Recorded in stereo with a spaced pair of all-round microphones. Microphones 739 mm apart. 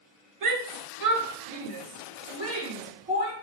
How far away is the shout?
About 0.7 m.